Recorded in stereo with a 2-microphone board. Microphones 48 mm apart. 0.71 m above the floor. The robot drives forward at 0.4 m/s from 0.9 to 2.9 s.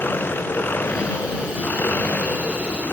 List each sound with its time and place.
0.0 s an engine running: 40° left (ahead or behind)